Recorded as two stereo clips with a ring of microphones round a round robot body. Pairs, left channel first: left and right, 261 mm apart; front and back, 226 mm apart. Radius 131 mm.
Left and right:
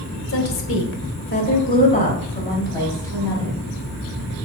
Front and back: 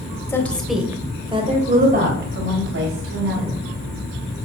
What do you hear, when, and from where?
0.3 s a woman speaking: 75° left, 2.0 m; by 3.6 s 175° left, 3.5 m